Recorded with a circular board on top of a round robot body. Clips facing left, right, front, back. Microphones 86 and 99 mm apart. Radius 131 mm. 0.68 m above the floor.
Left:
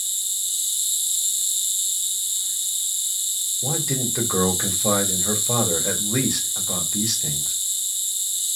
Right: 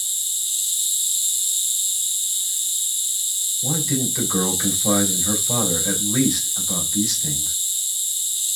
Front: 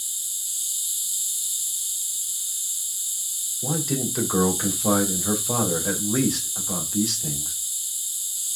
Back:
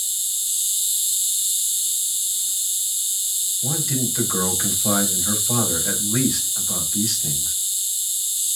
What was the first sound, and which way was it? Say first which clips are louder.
An insect: right 1 dB, back 5 dB; 160° left.